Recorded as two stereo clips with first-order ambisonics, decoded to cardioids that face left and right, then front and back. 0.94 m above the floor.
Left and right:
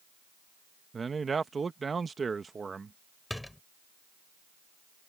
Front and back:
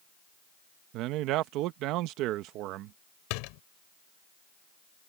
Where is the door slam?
5° left.